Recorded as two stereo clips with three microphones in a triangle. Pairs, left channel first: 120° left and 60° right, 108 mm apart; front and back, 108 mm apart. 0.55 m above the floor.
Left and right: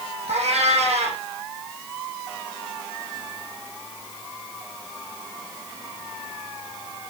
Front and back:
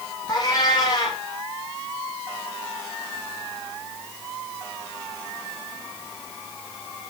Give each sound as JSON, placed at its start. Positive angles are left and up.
{"t": 0.3, "sound": "a cat meowing", "azimuth_deg": -50, "distance_m": 7.0}